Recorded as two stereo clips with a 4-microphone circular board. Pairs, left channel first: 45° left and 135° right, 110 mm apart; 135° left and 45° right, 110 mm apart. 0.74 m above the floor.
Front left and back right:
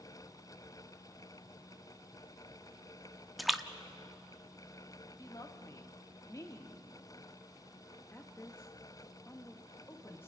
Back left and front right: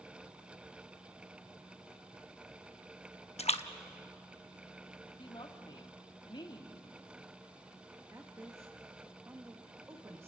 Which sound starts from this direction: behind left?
A splash, at 3.4 s.